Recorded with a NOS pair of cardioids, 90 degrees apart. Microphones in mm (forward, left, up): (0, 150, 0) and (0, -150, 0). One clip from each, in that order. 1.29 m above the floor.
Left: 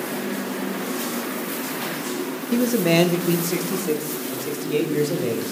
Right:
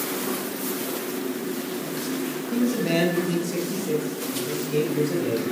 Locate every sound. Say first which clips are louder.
2.5 s a man speaking: left 5 dB; 35° left, 0.8 m; by 5.4 s 50° left, 2.5 m